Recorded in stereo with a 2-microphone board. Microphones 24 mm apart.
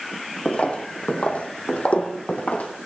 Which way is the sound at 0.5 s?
50° left (ahead or behind).